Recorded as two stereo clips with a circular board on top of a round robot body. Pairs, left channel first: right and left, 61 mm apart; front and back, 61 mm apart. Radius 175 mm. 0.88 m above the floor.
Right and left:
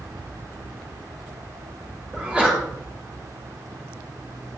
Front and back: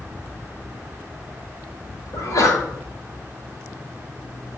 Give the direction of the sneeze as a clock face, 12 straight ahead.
11 o'clock.